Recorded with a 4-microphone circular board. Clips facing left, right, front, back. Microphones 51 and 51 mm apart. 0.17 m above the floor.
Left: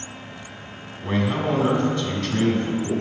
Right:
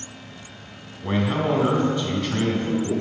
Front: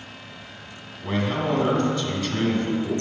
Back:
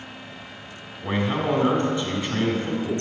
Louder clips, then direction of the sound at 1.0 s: Even, back 1 dB; 140° right.